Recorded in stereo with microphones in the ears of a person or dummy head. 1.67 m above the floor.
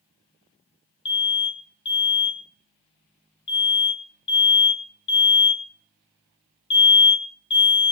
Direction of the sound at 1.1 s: 25° left (ahead or behind).